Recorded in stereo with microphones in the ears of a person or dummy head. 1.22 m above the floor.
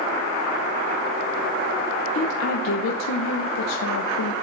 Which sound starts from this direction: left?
A woman speaking, at 2.1 s.